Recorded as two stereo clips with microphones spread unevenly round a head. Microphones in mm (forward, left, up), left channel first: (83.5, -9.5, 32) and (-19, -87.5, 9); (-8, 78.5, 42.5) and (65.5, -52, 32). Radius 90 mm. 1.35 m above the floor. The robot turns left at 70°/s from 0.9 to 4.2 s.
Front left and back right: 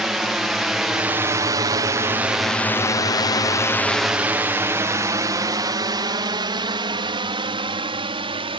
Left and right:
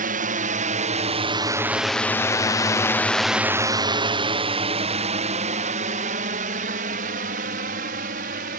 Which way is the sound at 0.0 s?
60° right.